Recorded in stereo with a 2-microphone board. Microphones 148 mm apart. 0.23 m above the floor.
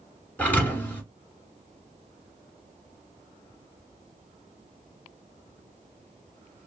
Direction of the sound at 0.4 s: 10° left (ahead or behind).